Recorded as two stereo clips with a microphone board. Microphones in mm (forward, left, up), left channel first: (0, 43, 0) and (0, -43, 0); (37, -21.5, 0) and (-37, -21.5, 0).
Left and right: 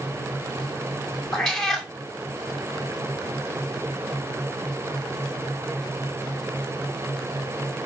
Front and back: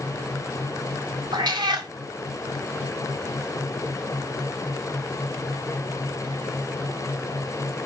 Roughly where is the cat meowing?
Behind.